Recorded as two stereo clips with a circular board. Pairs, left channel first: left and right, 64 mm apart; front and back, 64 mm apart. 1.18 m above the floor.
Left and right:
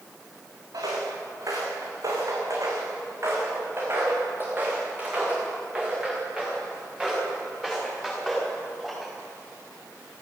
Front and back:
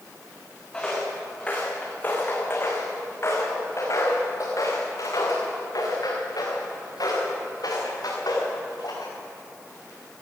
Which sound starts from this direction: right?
Footsteps, at 0.7 s.